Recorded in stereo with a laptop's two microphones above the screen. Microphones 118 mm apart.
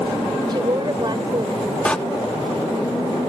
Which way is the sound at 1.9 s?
10° left (ahead or behind).